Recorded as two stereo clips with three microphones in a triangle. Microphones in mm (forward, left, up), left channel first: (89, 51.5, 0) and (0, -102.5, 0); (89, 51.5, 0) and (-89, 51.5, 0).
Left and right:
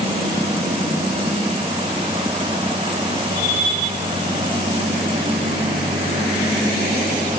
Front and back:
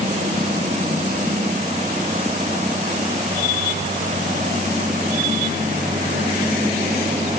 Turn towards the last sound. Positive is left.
No sound to turn to.